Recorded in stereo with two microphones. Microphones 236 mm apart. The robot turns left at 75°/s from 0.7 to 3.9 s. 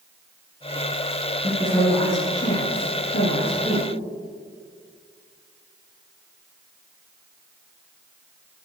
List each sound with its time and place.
1.4 s a woman speaking: 150° right, 4.5 m; by 3.9 s 30° left, 4.5 m